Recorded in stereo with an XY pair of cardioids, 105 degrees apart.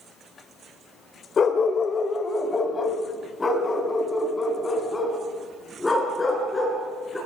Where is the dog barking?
45° left, 2 m; by 7.2 s 20° left, 8.5 m.